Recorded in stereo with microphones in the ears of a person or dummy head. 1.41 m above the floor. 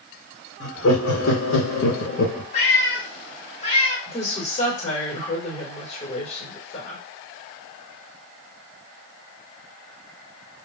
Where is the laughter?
60° left (ahead or behind), 1.0 m; by 2.4 s 45° left (ahead or behind), 0.6 m.